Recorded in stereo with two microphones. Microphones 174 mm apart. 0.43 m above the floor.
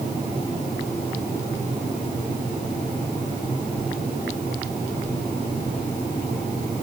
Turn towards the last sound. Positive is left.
No sound to turn to.